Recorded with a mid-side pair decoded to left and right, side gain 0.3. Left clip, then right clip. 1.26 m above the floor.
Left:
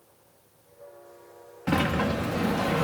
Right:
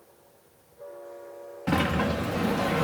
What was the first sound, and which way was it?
A sliding door, 10° left.